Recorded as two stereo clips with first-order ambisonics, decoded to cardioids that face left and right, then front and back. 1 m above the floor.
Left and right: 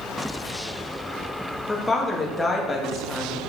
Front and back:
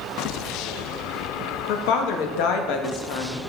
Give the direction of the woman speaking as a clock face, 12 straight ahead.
12 o'clock.